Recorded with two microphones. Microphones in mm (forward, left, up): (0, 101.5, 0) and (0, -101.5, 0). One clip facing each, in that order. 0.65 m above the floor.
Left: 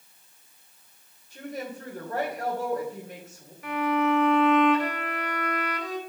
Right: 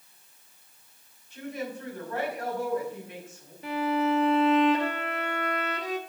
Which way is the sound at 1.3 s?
40° left (ahead or behind).